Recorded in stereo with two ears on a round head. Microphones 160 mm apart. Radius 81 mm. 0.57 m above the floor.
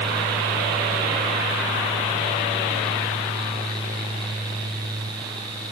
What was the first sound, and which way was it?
Only background noise.